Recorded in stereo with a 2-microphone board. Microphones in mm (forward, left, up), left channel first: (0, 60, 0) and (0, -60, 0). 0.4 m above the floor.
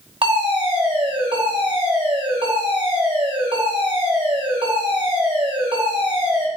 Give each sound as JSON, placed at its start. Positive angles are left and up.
{"t": 0.2, "sound": "a fire alarm", "side_deg": -50, "distance_m": 4.5}